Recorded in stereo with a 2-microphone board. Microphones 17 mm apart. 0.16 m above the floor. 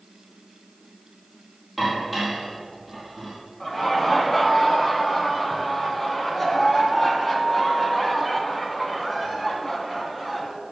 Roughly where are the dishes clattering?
Centre.